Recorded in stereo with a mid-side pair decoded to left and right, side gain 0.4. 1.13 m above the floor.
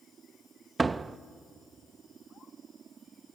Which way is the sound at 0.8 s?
35° right.